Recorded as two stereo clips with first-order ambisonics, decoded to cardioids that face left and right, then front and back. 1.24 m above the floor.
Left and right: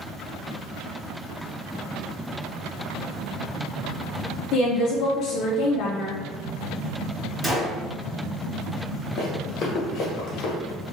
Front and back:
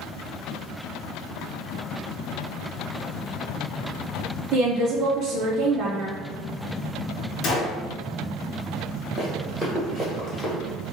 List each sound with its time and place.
4.5 s a woman speaking: 130° left, 0.5 m
7.4 s a gunshot: 10° right, 0.8 m
9.2 s running footsteps: 75° left, 1.3 m; by 10.5 s 100° left, 1.8 m